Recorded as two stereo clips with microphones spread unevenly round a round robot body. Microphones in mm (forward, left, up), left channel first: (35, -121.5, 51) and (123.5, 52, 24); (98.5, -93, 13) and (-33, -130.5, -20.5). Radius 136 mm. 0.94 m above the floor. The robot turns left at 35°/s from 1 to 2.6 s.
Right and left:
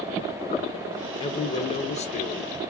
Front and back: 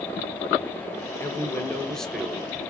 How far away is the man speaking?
About 0.9 m.